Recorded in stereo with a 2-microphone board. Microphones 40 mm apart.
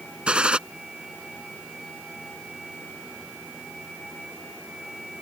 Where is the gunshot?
25° right (ahead or behind).